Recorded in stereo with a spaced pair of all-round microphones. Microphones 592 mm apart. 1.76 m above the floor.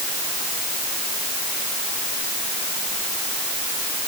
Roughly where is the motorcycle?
No motorcycle in this recording.